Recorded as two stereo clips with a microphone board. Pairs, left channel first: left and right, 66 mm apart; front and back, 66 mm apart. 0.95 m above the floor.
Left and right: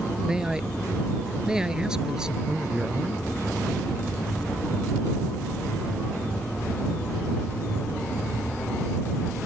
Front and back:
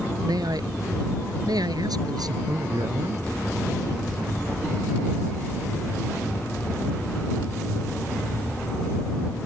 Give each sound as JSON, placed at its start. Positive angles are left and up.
{"t": 0.2, "sound": "a man speaking", "azimuth_deg": -170}